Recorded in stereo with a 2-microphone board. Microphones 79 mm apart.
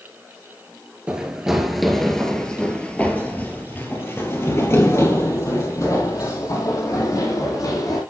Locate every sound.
1.1 s running footsteps: 10° right (ahead or behind), 2 m; by 8.0 s 50° left (ahead or behind), 5 m